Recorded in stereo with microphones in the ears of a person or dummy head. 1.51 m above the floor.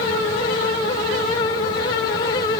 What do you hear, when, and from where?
Only background noise.